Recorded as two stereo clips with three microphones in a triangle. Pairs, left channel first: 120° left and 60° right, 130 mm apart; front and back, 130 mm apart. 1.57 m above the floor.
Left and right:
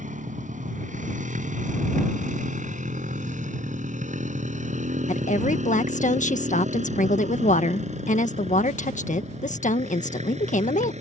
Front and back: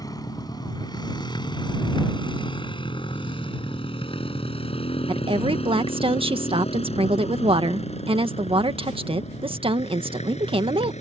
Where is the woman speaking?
135° left.